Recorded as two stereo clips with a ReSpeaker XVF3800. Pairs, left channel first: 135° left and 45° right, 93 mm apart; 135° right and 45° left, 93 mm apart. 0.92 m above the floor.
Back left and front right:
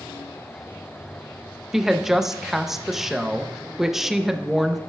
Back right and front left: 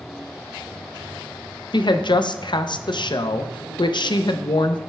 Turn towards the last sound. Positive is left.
turn(degrees=-130)